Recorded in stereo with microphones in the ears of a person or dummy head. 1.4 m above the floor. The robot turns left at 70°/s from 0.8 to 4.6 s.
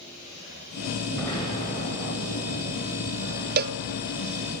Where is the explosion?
175° left, 8.5 m; by 2.8 s 55° left, 8.5 m.